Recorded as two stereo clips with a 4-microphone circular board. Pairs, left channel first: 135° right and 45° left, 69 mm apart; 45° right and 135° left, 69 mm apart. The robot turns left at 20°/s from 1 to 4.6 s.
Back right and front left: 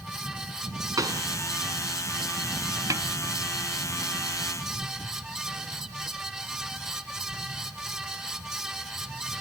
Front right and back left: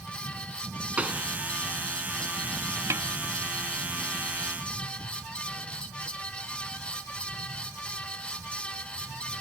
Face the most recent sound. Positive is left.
turn(degrees=50)